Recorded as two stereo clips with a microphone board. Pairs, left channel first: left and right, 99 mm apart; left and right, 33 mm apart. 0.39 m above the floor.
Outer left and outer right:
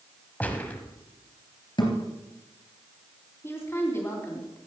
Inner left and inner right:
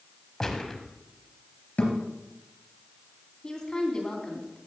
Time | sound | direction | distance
0.4 | a gunshot | 15° left (ahead or behind) | 1.4 m
1.8 | a thud | 50° left (ahead or behind) | 3.5 m
3.4 | a woman speaking | 25° left (ahead or behind) | 3 m